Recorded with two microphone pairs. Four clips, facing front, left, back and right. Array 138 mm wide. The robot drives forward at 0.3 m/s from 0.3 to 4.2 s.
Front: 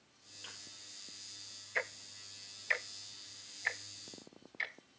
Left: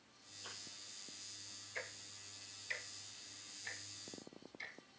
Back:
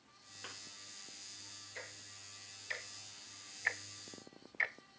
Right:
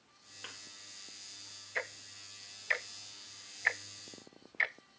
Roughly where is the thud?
Behind right.